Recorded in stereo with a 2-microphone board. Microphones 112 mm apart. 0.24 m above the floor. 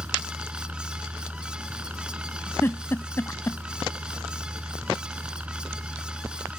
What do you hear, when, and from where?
0.0 s a helicopter: 15° right (ahead or behind)
2.6 s a giggle: 25° left (ahead or behind)